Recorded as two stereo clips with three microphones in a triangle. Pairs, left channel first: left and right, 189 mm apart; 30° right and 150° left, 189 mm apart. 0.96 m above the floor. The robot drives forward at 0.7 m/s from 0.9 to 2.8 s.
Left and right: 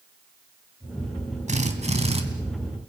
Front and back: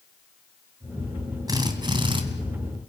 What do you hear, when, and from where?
1.5 s a drill: 140° right, 2.5 m; by 2.2 s 145° right, 3 m